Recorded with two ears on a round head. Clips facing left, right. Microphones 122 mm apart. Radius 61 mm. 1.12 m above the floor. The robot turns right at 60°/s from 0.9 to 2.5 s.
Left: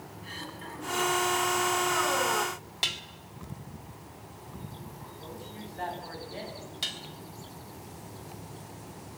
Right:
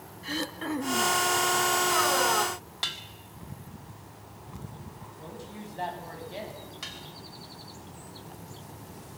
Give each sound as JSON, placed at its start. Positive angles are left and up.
{"t": 0.2, "sound": "throat clearing", "side_deg": -70, "distance_m": 1.5}
{"t": 2.8, "sound": "dishes clattering", "side_deg": 20, "distance_m": 1.7}
{"t": 5.2, "sound": "a woman speaking", "side_deg": -25, "distance_m": 7.5}
{"t": 6.8, "sound": "dishes clattering", "side_deg": 35, "distance_m": 3.0}